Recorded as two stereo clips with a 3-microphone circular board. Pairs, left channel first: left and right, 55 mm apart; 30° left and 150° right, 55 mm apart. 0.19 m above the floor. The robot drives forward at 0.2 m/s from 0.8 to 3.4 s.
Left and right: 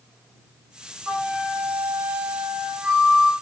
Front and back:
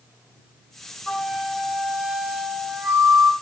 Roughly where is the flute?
Ahead right.